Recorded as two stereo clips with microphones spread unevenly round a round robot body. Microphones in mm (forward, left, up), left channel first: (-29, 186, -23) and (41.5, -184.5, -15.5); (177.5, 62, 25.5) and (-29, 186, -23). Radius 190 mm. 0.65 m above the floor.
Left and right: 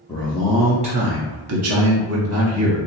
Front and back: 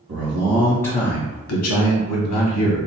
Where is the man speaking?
175° left, 0.8 m; by 2.8 s 25° right, 1.5 m.